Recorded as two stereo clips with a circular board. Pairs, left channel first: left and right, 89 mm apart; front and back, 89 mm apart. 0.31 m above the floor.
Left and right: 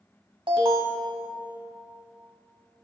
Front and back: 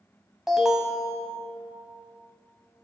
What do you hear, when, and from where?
0.5 s an alarm: 95° right, 1.1 m